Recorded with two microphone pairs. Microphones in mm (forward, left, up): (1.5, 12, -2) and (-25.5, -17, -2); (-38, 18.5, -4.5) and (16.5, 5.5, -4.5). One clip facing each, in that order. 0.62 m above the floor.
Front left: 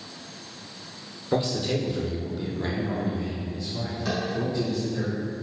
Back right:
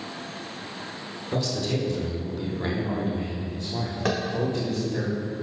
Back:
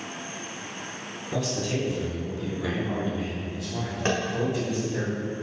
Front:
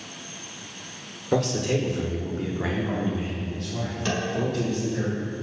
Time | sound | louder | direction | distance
1.3 | a man speaking | front left 2 dB, front 5 dB | 10° right | 1.8 m
4.0 | tapping | back right 3 dB, back 2 dB | 140° right | 1.0 m